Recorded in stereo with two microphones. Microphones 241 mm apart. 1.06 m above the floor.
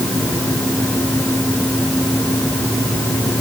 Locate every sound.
Only background noise.